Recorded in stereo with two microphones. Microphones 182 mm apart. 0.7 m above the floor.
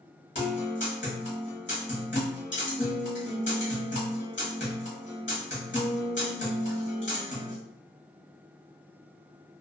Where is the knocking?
I don't hear knocking.